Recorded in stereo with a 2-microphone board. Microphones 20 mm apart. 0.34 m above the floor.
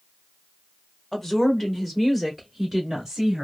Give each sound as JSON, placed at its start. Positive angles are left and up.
{"t": 1.1, "sound": "a woman speaking", "side_deg": 20, "distance_m": 1.4}